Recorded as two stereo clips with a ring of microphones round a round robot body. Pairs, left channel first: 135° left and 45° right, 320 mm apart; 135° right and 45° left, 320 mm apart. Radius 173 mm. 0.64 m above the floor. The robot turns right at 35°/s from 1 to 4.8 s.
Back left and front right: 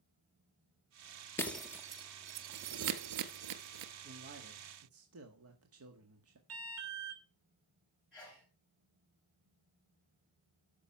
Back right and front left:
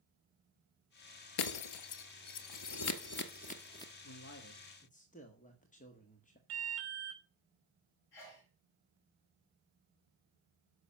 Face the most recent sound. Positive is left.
turn(degrees=-135)